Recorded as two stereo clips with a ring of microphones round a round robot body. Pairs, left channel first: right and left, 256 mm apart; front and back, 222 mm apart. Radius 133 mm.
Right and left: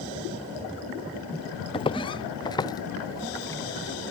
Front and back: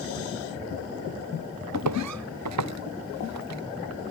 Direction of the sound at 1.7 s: 160° right.